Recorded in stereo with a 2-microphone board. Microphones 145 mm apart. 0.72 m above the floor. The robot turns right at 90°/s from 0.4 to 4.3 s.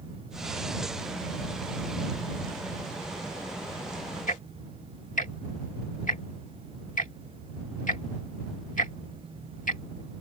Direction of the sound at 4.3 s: 70° left (ahead or behind).